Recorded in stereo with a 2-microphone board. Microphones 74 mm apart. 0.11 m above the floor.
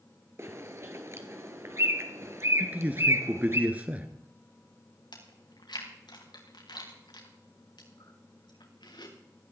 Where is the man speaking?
20° right (ahead or behind), 1.8 m.